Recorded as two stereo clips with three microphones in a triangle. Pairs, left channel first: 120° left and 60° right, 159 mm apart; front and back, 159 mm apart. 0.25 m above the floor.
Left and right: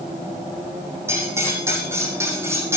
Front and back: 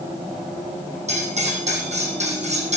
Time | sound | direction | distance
1.1 | cutlery clinking | 135° right | 6 m